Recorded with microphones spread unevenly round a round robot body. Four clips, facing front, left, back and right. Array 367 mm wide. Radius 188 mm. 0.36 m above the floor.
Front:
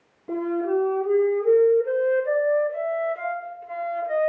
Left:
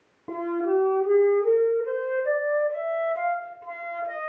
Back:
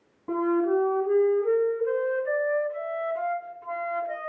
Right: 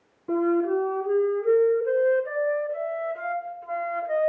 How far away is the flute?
About 3 m.